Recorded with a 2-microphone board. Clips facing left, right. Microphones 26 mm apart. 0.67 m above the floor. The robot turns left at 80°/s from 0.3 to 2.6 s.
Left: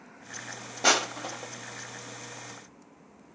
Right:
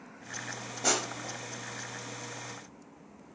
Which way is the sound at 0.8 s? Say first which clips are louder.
Left 7 dB; 40° left (ahead or behind).